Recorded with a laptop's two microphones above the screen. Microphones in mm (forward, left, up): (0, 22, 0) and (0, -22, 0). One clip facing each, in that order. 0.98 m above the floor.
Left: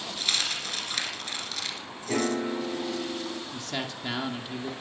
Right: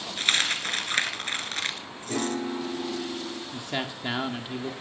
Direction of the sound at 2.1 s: 30° left (ahead or behind).